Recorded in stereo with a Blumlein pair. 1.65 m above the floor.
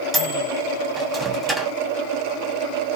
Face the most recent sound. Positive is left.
turn(degrees=-5)